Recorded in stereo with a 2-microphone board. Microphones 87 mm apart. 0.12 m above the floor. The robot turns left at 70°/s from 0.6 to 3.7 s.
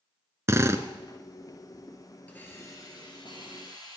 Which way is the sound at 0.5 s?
30° right (ahead or behind).